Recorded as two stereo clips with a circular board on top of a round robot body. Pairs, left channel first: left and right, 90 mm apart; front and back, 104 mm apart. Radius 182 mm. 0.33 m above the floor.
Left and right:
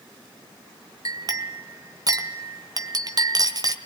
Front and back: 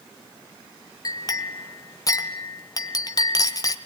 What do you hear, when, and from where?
1.1 s a clink: 50° right, 1.6 m